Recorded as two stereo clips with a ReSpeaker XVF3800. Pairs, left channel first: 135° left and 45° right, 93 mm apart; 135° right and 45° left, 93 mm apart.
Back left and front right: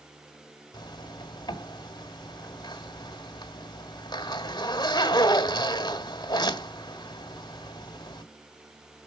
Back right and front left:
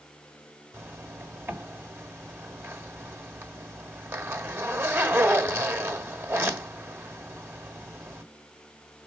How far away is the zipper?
About 1.4 m.